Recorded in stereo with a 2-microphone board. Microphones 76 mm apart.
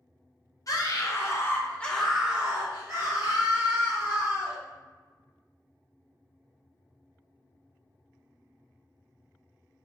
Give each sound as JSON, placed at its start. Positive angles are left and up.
{"t": 0.7, "sound": "a scream", "side_deg": 50, "distance_m": 0.9}